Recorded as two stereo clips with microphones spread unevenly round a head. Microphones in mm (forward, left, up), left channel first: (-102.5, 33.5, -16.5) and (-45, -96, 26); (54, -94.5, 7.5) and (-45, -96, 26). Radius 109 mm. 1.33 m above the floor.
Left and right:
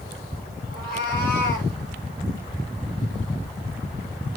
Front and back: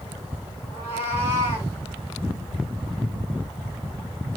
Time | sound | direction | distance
0.7 | a cat meowing | 60° left | 1.8 m